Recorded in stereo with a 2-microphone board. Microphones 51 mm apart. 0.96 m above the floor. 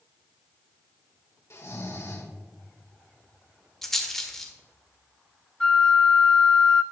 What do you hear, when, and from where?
1.5 s snoring: 65° left (ahead or behind), 2 m
3.8 s a rattle: 5° left (ahead or behind), 1.3 m
5.6 s a flute: 10° left (ahead or behind), 0.7 m